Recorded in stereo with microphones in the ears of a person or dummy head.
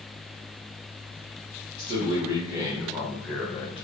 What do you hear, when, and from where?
1.8 s a man speaking: 25° right (ahead or behind), 1.7 m; by 3.9 s 30° left (ahead or behind), 0.8 m